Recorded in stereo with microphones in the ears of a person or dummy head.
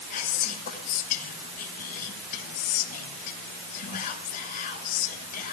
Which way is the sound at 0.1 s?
45° left (ahead or behind).